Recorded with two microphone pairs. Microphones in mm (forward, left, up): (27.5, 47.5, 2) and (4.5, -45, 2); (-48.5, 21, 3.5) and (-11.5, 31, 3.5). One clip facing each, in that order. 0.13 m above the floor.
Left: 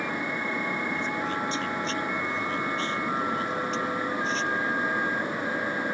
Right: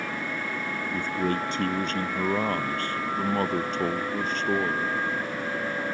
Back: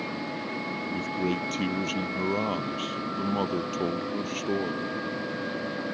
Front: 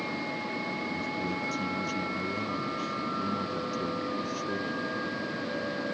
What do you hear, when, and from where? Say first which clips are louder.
0.9 s a man speaking: right 2 dB, back 3 dB; 135° right